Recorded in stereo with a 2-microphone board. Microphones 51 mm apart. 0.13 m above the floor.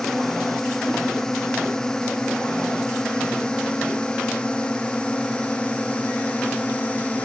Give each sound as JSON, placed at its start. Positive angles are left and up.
{"t": 0.0, "sound": "a drone", "side_deg": 10}